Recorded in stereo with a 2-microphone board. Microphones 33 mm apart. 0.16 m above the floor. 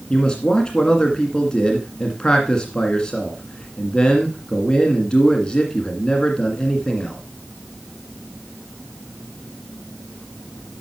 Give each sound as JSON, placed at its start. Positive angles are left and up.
{"t": 0.1, "sound": "a man speaking", "side_deg": 20, "distance_m": 1.8}